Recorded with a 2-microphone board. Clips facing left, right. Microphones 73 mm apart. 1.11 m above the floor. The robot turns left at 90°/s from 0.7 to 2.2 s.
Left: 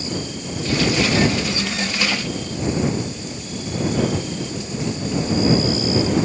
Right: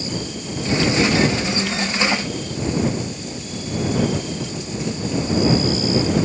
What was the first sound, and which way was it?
Only background noise.